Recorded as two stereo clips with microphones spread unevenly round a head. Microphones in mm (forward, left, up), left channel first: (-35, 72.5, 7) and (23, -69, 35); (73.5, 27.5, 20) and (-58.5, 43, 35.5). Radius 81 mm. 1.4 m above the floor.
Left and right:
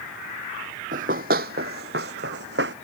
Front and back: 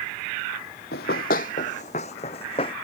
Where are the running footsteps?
40° right; by 2.8 s 70° right.